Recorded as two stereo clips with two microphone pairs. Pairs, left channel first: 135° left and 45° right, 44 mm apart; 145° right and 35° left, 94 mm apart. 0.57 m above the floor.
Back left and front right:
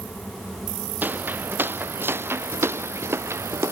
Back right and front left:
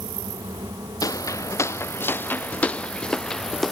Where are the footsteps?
90° right; by 3.7 s 55° right.